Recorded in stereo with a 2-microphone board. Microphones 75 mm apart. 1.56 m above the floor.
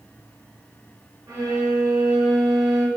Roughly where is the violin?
Right.